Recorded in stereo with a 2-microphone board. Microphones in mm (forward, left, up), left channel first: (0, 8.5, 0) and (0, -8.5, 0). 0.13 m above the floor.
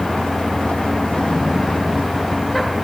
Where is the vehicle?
85° left.